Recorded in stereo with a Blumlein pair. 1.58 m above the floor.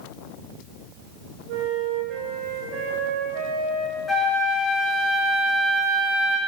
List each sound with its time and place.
1.5 s a flute: 45° right, 2 m
4.1 s a flute: 5° left, 4 m